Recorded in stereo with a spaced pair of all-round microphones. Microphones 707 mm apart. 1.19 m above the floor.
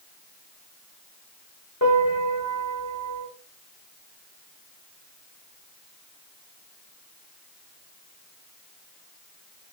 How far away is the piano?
About 1.2 m.